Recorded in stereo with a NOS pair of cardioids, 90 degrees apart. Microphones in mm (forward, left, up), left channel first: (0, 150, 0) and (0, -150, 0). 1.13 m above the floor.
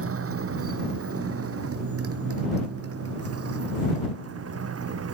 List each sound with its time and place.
0.0 s a motorcycle: 50° right